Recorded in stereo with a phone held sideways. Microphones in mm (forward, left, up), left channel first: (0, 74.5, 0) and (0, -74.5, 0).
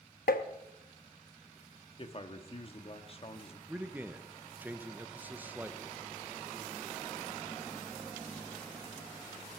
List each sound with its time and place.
0.3 s tapping: 85° left, 0.8 m
2.0 s a man speaking: 40° left (ahead or behind), 1.3 m
3.7 s a man speaking: 10° right (ahead or behind), 0.7 m